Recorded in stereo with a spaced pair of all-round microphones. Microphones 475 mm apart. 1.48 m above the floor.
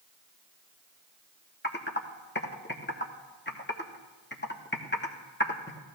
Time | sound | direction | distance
1.6 | typing on a keyboard | 20° left (ahead or behind) | 1.0 m